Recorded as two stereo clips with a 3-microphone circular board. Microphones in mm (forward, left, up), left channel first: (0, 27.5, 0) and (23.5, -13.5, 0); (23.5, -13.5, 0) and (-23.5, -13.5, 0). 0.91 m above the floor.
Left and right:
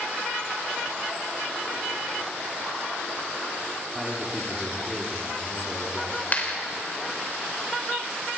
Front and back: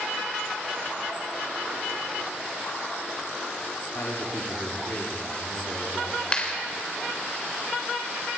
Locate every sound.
4.0 s a man speaking: 15° left, 2.5 m
6.3 s a clap: 70° left, 3 m